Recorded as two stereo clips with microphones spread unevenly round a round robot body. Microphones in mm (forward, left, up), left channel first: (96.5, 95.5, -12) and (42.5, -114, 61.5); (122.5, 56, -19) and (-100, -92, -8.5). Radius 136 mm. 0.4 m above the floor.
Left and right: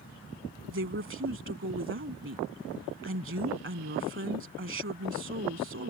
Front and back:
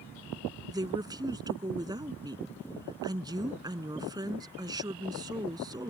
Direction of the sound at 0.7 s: 70° right.